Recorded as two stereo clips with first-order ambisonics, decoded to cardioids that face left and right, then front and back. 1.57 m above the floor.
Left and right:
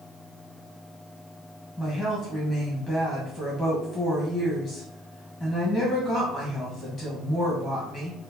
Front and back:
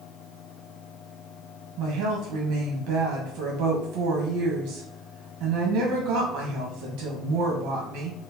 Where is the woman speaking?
175° left, 1.1 m.